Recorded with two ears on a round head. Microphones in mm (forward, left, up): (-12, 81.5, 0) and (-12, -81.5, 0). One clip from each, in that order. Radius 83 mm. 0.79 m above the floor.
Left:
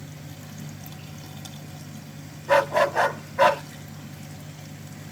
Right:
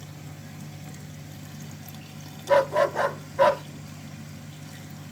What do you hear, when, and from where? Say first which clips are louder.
2.5 s a dog barking: left 1 dB; 30° left (ahead or behind), 1.1 m